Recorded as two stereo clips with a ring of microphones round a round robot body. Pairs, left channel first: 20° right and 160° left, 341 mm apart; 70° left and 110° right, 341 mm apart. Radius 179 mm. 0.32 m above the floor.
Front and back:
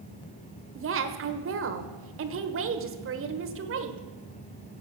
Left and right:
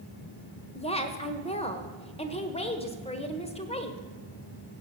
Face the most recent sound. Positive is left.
turn(degrees=130)